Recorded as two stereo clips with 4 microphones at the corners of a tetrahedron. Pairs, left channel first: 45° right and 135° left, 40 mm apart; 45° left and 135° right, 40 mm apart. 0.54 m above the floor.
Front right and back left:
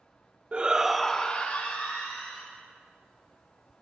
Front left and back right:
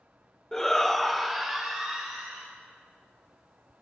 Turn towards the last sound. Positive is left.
turn(degrees=-55)